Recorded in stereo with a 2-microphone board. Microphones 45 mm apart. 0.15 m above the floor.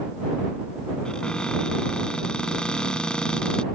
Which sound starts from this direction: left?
A cupboard door, at 1.1 s.